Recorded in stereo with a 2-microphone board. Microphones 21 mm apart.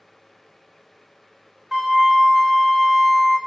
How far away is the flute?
About 1.0 m.